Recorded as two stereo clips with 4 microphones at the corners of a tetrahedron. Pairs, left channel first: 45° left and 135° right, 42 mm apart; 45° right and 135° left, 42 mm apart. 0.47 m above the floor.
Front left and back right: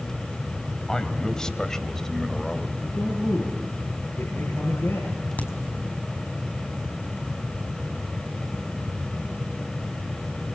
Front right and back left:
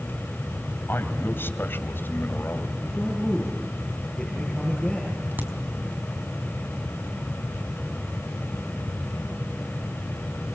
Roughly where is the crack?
Left.